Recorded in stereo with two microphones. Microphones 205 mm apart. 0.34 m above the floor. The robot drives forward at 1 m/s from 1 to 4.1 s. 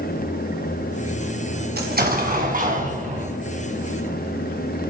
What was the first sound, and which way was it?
An explosion, 50° right (ahead or behind).